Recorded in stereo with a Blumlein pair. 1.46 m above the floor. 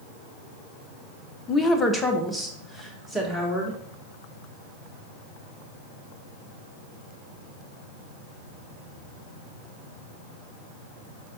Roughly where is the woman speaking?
Ahead.